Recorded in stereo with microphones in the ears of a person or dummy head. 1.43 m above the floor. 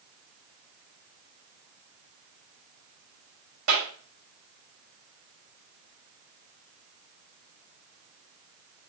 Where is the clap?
75° right (ahead or behind), 5.5 m.